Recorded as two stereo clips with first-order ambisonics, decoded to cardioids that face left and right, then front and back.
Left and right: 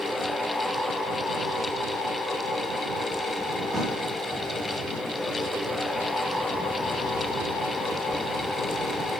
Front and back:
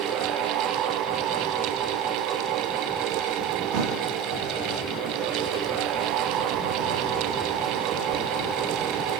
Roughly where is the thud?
Behind.